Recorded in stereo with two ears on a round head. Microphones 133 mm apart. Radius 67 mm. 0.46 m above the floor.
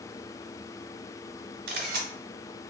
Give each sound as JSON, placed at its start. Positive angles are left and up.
{"t": 1.7, "sound": "a camera shutter", "side_deg": -65, "distance_m": 1.3}